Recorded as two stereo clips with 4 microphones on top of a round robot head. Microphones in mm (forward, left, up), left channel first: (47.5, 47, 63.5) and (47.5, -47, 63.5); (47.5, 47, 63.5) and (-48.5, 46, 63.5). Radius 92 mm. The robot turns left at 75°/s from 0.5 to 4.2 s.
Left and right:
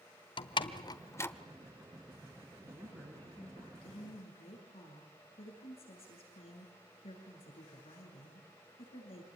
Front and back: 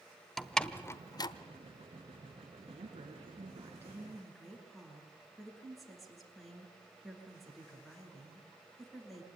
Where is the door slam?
85° left, 1.0 m; by 1.3 s 25° left, 1.0 m.